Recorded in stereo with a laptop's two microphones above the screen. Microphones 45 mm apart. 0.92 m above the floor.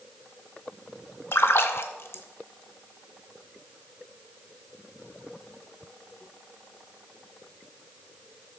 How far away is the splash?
About 0.8 m.